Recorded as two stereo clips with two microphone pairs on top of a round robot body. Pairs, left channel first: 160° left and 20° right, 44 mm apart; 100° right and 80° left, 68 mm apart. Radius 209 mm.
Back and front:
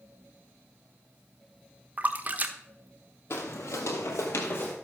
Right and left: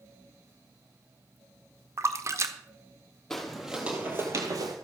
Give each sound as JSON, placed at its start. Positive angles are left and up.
{"t": 2.0, "sound": "a splash", "azimuth_deg": 35, "distance_m": 1.0}
{"t": 3.3, "sound": "footsteps", "azimuth_deg": 175, "distance_m": 1.4}